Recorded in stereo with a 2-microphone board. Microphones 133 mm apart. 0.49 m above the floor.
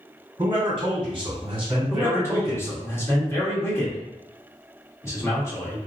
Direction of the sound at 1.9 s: 20° left (ahead or behind).